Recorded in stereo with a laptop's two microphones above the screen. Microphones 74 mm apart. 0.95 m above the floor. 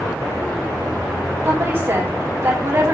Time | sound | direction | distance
1.4 | a woman speaking | 45° right (ahead or behind) | 3 m